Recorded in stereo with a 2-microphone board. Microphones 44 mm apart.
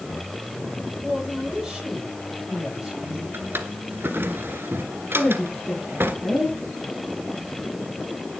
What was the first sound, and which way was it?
A woman speaking, 10° right (ahead or behind).